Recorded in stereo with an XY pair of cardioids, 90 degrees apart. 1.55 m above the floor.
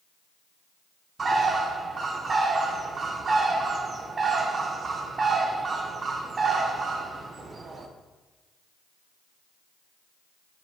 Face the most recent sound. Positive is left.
turn(degrees=-45)